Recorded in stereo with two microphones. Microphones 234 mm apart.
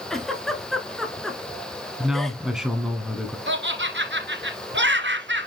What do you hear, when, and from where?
0.1 s a giggle: centre (ahead or behind), 1.4 m
2.0 s a man speaking: centre (ahead or behind), 1.3 m
3.5 s laughter: 50° right (ahead or behind), 1.7 m